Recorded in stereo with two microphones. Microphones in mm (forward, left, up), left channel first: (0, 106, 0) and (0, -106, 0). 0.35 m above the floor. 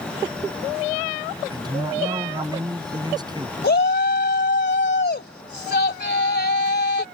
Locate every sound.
1.5 s a man speaking: 20° right (ahead or behind)
3.6 s a shout: 50° left (ahead or behind)